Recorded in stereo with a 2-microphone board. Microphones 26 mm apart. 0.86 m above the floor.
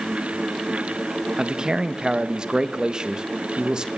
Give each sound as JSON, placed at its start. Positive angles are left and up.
{"t": 1.4, "sound": "a man speaking", "side_deg": -30, "distance_m": 0.7}